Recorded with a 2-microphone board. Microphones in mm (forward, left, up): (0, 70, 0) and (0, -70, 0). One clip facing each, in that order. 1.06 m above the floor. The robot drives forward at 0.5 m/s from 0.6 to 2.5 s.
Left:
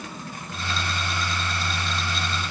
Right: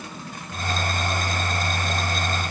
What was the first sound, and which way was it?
Only background noise.